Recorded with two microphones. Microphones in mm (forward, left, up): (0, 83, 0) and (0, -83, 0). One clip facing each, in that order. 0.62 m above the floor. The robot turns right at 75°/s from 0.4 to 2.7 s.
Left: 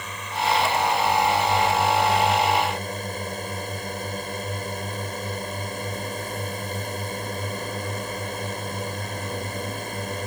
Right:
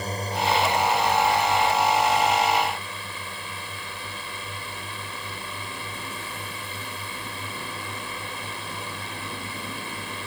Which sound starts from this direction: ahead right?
A drone, at 0.0 s.